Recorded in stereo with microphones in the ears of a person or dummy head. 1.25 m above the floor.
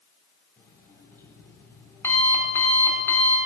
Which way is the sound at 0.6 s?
10° left (ahead or behind).